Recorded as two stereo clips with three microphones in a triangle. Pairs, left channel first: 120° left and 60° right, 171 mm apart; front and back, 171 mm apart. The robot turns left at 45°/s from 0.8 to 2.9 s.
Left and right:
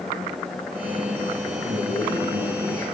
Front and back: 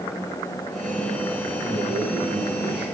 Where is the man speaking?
50° right, 9 m; by 2.9 s 105° right, 9 m.